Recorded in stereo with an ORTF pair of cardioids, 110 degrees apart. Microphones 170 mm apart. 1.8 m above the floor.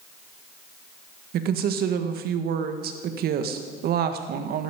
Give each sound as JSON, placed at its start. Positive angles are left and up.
{"t": 1.3, "sound": "a woman speaking", "azimuth_deg": -70, "distance_m": 1.8}